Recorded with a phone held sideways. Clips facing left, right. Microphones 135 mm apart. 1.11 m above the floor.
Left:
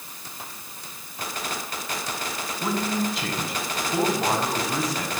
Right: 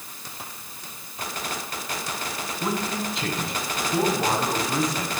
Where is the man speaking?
5° left (ahead or behind), 8 m.